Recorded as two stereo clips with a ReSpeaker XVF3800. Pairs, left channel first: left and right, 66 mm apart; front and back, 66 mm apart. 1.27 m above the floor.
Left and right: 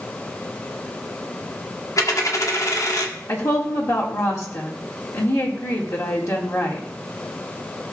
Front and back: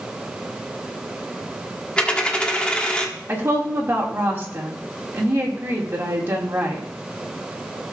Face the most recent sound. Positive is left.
turn(degrees=125)